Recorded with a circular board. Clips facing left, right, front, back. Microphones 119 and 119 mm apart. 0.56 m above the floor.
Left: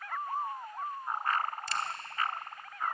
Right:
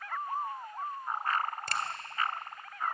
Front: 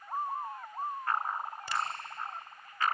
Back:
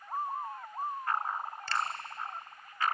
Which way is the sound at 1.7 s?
75° right.